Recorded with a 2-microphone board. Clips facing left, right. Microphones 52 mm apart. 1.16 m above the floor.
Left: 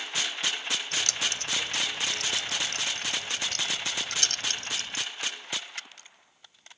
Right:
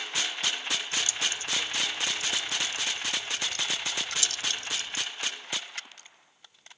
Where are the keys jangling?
75° left (ahead or behind); by 5.0 s 50° left (ahead or behind).